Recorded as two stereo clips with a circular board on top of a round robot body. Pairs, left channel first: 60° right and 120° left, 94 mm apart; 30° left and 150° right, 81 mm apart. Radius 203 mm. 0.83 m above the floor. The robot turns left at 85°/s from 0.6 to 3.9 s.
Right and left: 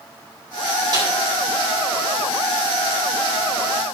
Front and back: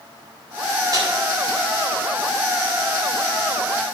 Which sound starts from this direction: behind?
A snare drum, at 0.9 s.